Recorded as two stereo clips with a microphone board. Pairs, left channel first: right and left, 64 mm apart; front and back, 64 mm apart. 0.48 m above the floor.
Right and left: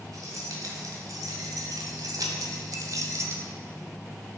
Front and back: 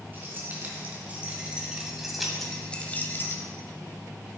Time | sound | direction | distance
0.1 | keys jangling | 120° left | 3 m